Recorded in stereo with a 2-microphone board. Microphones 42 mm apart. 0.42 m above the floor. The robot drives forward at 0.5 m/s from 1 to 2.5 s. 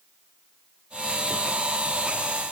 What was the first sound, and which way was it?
Only background noise.